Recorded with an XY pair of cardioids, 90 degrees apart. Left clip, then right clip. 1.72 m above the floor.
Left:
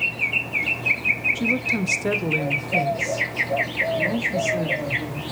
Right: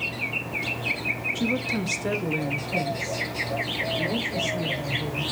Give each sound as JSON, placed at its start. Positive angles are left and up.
{"t": 1.4, "sound": "a woman speaking", "azimuth_deg": 0, "distance_m": 0.9}